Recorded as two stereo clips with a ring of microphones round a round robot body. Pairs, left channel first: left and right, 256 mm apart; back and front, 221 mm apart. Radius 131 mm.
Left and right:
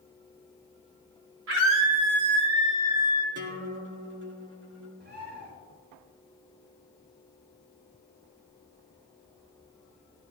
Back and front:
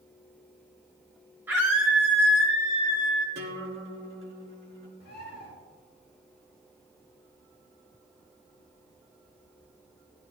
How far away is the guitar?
About 1.9 m.